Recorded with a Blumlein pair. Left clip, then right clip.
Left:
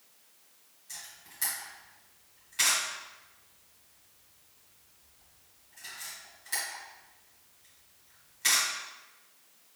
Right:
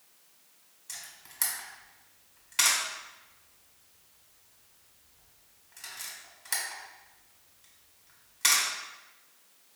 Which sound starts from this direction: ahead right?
A camera shutter, at 0.9 s.